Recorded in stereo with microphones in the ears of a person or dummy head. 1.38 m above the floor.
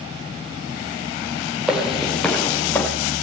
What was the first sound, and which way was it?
Footsteps, 5° right (ahead or behind).